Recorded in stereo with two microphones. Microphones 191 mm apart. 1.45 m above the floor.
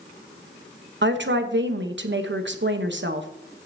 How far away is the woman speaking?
About 0.9 m.